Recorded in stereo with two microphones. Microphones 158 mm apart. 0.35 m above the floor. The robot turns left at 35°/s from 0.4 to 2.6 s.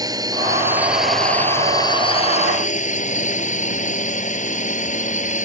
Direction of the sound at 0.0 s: 155° right.